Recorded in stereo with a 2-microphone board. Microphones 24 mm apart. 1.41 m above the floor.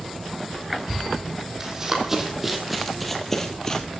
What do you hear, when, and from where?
1.6 s running footsteps: 20° right (ahead or behind), 4 m; by 3.9 s 25° left (ahead or behind), 2.5 m